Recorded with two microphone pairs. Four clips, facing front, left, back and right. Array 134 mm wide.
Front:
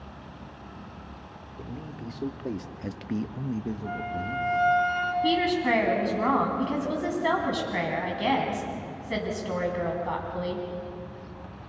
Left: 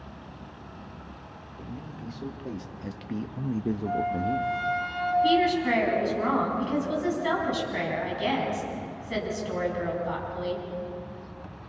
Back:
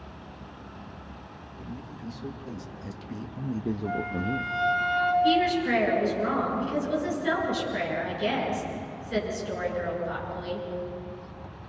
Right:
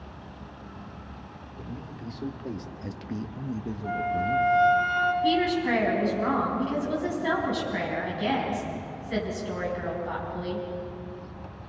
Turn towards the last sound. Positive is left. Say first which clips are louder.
# left 1 dB, back 1 dB
turn(degrees=0)